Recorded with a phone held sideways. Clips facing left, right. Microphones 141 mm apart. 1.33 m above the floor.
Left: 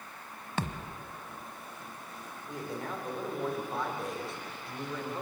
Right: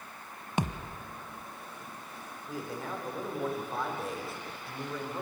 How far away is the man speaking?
About 4.5 m.